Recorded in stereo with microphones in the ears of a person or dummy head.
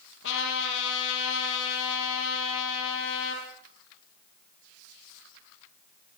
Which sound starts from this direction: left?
A trumpet, at 0.2 s.